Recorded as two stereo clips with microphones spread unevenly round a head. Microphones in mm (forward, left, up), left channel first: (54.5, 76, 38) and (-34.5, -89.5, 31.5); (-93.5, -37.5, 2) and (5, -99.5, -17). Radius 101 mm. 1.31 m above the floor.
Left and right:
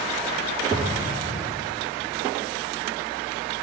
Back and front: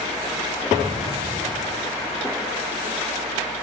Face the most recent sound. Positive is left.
turn(degrees=-75)